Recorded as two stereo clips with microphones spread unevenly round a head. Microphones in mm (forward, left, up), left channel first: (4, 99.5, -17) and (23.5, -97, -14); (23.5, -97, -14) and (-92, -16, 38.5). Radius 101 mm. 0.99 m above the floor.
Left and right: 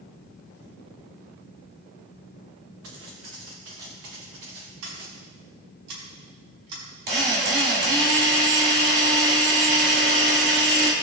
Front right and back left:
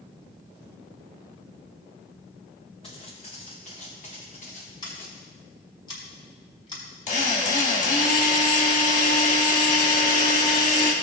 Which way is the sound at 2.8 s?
90° right.